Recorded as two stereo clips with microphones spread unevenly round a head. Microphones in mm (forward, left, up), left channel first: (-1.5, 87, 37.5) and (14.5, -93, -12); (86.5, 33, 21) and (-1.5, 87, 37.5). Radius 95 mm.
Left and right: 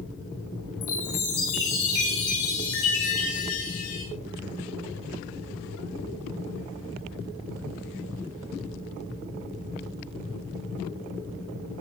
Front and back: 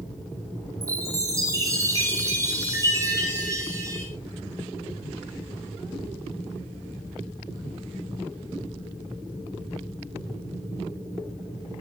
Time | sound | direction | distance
0.8 | a chime | 90° left | 9.5 m